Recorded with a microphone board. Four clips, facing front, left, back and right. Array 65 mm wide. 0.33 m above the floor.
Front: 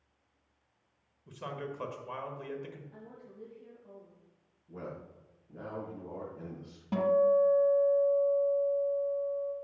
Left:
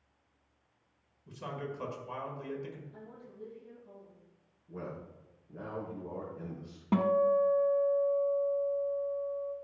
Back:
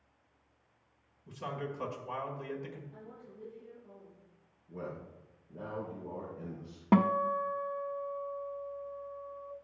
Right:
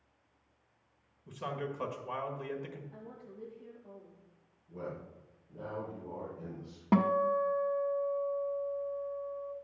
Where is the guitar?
165° right, 0.5 m.